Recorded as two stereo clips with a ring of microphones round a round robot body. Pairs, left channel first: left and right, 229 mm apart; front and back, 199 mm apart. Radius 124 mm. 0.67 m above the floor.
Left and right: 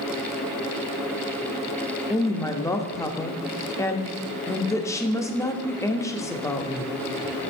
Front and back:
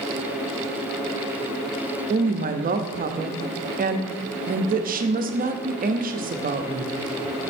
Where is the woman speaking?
165° left, 0.7 m.